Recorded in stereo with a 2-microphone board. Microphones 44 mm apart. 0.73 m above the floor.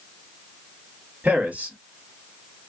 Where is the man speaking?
35° right (ahead or behind), 2 m.